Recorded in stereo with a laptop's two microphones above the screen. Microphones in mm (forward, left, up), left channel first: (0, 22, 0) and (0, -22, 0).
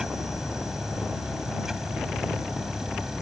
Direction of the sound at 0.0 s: 10° right (ahead or behind).